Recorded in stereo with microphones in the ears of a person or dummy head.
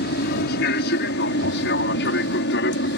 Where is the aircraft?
60° left (ahead or behind).